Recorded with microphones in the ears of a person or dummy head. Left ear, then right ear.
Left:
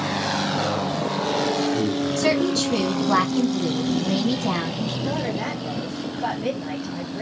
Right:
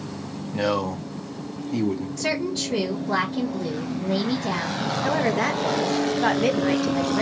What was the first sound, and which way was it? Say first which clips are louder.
A man speaking: left 1 dB; 40° right (ahead or behind).